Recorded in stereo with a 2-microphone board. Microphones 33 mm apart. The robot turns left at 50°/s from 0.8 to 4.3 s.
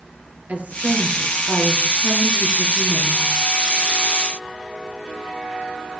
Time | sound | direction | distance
0.5 | a woman speaking | 65° right | 2.5 m